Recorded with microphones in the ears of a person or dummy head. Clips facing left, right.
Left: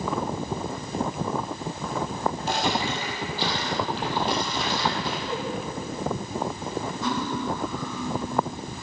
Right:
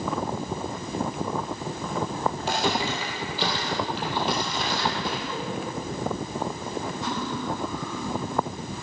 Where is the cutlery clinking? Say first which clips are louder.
Left 5 dB; 75° left (ahead or behind), 3 m.